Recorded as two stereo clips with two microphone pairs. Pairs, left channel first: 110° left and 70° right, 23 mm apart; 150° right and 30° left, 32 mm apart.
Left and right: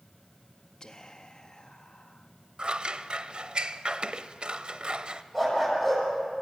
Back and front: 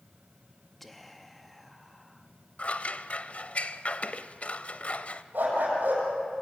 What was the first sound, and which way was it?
Whispering, 130° left.